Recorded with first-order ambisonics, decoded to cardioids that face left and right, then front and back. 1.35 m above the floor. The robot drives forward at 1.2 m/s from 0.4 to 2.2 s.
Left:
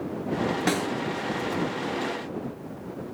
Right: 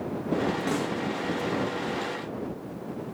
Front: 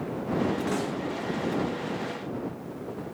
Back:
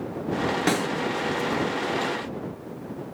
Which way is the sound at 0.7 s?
140° left.